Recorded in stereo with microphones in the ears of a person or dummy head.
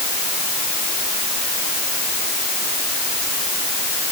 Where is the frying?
I don't hear frying.